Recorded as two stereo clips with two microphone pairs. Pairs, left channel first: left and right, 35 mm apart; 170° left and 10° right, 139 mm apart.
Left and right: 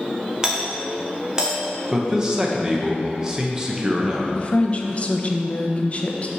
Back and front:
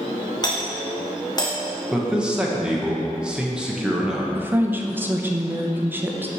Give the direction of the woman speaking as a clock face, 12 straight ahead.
10 o'clock.